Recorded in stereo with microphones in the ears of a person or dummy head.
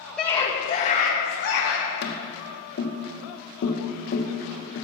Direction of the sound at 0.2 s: Centre (ahead or behind).